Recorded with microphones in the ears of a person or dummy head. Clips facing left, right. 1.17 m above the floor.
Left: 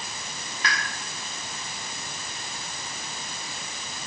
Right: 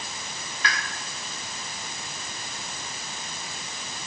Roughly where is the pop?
Left.